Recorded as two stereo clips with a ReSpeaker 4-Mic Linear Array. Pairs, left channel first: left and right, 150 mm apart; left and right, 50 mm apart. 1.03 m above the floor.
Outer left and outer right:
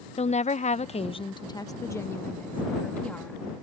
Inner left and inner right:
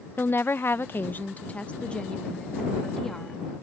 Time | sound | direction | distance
0.2 | a woman speaking | 45° left (ahead or behind) | ?